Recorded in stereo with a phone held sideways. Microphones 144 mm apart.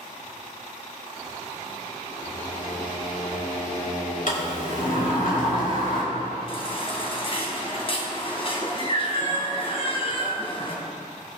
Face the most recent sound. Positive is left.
turn(degrees=40)  # may be behind; listen again after turning